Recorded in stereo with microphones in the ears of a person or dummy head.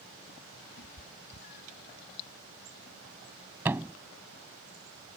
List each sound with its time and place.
0.8 s a cat meowing: 50° left (ahead or behind); by 1.9 s 55° left (ahead or behind)
3.6 s a thud: 10° right (ahead or behind)